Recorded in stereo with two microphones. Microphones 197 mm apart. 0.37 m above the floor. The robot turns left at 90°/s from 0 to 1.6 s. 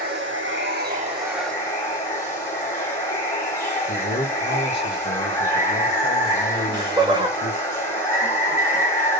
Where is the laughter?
25° right (ahead or behind), 1.4 m.